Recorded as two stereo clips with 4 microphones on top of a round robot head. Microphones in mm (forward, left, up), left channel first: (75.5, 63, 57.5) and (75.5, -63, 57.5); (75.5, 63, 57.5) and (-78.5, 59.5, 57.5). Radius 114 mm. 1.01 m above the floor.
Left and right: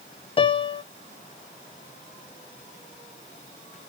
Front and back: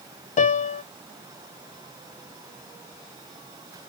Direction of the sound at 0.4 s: 45° left.